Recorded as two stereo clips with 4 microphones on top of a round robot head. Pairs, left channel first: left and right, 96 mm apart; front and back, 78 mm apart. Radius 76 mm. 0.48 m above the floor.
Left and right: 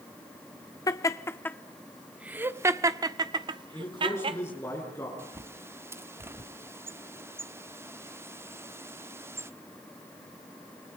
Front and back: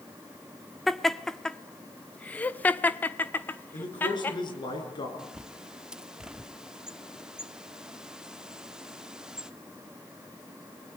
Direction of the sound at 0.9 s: 90° left.